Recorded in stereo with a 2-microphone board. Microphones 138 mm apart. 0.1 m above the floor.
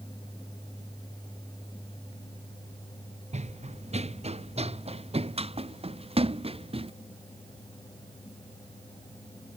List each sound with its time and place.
3.3 s running footsteps: 55° right (ahead or behind); by 6.9 s 45° right (ahead or behind)